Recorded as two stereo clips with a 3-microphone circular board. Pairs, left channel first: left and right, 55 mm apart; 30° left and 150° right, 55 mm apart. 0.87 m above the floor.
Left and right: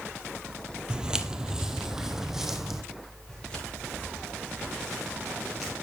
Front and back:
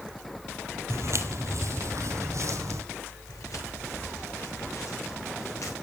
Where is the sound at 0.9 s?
165° right, 1.4 m; by 2.8 s 175° right, 2.5 m.